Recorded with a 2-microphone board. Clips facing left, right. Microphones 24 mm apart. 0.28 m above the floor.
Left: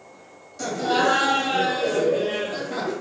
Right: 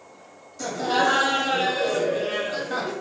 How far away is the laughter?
About 1.2 m.